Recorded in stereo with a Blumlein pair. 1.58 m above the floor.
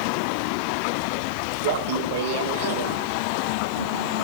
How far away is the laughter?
About 2.5 m.